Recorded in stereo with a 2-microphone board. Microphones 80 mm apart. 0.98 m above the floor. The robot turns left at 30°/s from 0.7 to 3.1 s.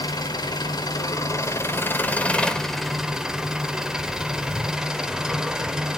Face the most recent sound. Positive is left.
turn(degrees=-5)